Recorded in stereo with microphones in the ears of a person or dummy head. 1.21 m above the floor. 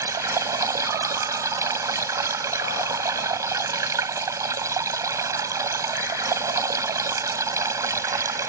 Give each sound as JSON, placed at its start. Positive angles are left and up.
{"t": 0.0, "sound": "running water", "side_deg": -20}